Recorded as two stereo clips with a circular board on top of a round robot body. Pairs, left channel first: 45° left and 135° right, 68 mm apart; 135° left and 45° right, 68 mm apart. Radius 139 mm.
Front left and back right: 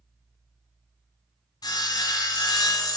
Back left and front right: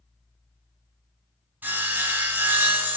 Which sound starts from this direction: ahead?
Sawing, at 1.6 s.